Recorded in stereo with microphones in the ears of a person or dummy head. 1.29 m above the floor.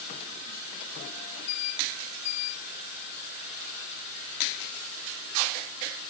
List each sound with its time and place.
Only background noise.